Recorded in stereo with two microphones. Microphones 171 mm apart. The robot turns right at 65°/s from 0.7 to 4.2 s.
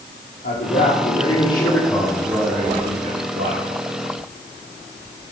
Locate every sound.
0.4 s a man speaking: 100° left, 6.5 m; by 3.7 s 65° right, 6.5 m